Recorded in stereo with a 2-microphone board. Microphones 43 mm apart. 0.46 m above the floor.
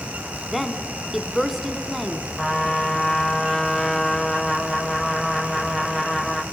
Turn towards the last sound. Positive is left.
turn(degrees=5)  # may be behind; listen again after turning